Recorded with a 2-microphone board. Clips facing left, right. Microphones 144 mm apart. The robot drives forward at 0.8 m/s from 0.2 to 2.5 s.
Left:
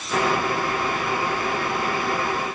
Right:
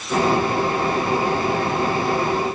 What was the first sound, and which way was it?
Only background noise.